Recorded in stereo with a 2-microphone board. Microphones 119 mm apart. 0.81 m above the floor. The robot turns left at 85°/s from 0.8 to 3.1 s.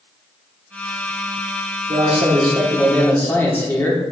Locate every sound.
1.9 s a man speaking: 95° right, 2 m; by 4.0 s 160° left, 2 m